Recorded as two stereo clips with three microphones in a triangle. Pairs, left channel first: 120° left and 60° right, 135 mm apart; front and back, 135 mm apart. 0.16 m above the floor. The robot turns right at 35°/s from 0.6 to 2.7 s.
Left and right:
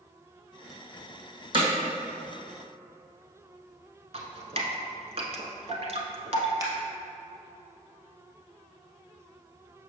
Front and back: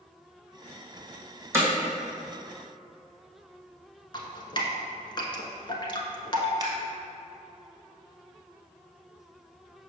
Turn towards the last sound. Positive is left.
turn(degrees=-120)